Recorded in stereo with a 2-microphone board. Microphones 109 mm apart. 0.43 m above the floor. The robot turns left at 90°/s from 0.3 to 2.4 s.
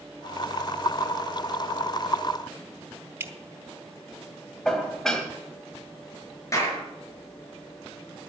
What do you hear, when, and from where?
3.2 s dripping: 20° right (ahead or behind), 0.9 m
4.7 s dishes clattering: 5° left (ahead or behind), 1.7 m
6.5 s a clap: 30° left (ahead or behind), 5.5 m